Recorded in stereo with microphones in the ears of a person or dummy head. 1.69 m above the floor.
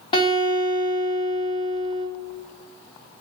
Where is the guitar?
30° left (ahead or behind), 2.5 m.